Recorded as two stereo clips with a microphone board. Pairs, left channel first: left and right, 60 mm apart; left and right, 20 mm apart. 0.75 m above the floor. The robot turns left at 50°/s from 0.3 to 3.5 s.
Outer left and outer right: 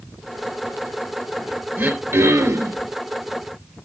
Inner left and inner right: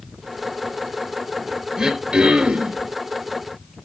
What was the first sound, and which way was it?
Throat clearing, 45° right.